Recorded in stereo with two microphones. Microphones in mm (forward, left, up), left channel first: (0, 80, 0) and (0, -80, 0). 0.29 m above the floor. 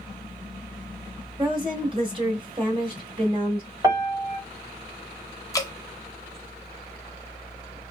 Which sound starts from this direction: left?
Dripping, at 5.5 s.